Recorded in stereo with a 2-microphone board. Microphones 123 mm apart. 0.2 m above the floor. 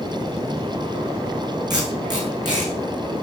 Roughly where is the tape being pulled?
Right.